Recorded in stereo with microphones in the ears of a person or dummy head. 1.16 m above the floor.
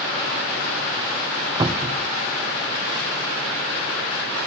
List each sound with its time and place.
1.6 s a cupboard door: 20° right (ahead or behind), 0.7 m